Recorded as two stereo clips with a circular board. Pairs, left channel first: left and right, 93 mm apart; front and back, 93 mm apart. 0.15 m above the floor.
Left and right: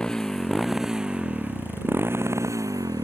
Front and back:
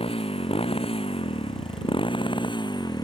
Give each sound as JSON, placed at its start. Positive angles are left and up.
{"t": 0.0, "sound": "a motorcycle", "azimuth_deg": 10}